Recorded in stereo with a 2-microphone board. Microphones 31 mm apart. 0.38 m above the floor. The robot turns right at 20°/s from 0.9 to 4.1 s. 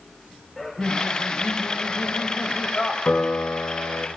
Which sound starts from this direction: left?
A piano, at 3.0 s.